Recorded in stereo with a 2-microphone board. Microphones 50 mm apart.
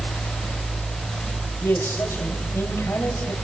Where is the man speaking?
55° left (ahead or behind), 4.5 m.